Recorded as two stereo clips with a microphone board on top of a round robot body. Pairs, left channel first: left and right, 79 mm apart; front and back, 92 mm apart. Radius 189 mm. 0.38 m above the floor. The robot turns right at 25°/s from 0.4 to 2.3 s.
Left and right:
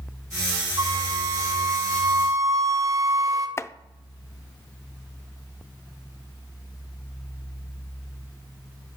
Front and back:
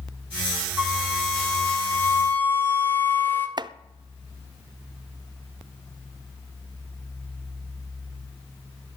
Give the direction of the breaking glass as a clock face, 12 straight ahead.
No breaking glass in this recording.